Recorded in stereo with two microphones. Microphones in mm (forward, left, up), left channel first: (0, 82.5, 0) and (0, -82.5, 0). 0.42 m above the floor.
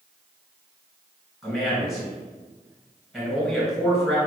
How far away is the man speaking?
About 1.8 m.